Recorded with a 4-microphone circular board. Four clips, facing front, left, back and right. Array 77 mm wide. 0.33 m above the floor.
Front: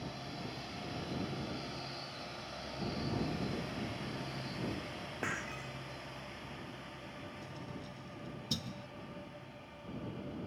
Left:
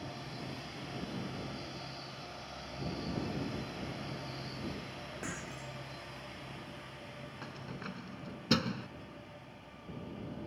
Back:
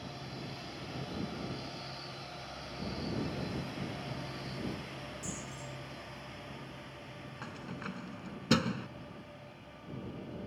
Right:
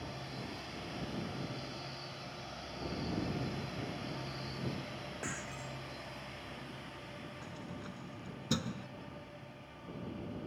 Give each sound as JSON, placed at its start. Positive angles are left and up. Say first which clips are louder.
{"t": 5.2, "sound": "breaking glass", "louder": "even, front 4 dB", "azimuth_deg": 0}
{"t": 7.4, "sound": "keys jangling", "louder": "left 4 dB, back 4 dB", "azimuth_deg": 155}